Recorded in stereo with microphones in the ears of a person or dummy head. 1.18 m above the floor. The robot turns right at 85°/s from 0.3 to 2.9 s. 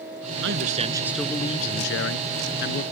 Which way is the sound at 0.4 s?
65° right.